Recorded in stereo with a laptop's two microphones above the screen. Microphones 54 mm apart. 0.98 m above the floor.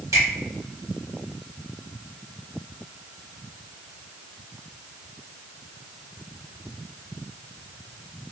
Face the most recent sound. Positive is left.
turn(degrees=-75)  # may be behind; listen again after turning